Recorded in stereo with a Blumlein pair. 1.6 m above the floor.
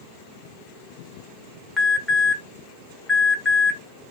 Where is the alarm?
5° left, 1.0 m.